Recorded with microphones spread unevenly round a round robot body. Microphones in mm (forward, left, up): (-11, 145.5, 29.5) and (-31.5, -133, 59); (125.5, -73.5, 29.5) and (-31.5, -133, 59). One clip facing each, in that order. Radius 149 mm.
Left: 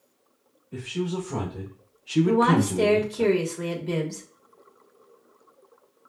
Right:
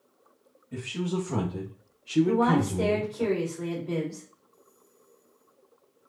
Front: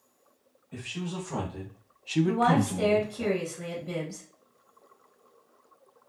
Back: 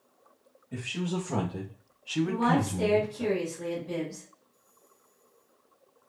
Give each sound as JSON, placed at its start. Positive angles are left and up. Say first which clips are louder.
{"t": 0.7, "sound": "a man speaking", "louder": "left 2 dB, back 4 dB", "azimuth_deg": -120, "distance_m": 2.0}
{"t": 2.2, "sound": "a woman speaking", "louder": "left 3 dB, front 2 dB", "azimuth_deg": 55, "distance_m": 1.6}